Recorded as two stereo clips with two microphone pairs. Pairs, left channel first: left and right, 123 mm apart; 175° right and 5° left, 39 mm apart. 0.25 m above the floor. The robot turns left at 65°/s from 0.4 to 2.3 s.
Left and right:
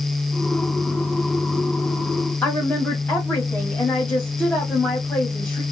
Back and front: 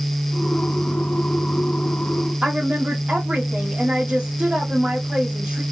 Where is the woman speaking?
25° left, 1.4 m.